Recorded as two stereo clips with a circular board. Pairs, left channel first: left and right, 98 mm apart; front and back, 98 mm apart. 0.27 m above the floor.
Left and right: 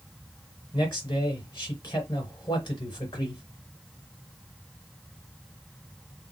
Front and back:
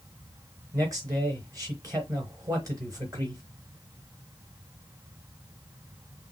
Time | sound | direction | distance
0.7 | a man speaking | 130° left | 3.5 m